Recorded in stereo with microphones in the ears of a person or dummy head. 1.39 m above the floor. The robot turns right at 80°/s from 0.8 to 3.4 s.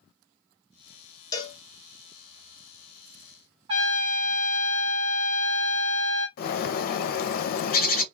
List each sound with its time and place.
1.3 s a cowbell: 20° left (ahead or behind), 0.8 m; by 1.6 s 40° left (ahead or behind), 0.8 m
3.7 s a trumpet: 30° right (ahead or behind), 0.9 m
6.4 s a bird: 50° left (ahead or behind), 0.5 m